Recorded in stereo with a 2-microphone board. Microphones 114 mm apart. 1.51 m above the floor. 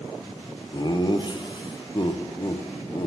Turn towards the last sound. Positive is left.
turn(degrees=40)  # may be behind; listen again after turning